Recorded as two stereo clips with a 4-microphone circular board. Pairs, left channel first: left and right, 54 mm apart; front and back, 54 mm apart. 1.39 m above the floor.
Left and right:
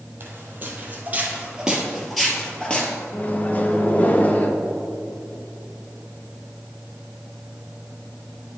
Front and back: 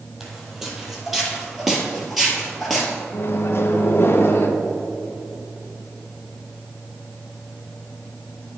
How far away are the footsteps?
About 1.9 m.